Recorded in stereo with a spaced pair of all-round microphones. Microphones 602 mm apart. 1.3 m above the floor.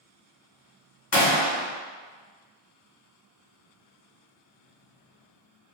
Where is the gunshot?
45° left (ahead or behind), 0.8 m.